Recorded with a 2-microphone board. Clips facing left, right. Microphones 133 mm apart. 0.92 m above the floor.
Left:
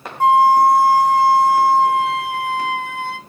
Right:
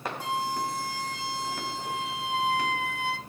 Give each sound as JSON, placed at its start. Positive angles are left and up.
{"t": 0.2, "sound": "a flute", "side_deg": 55, "distance_m": 0.6}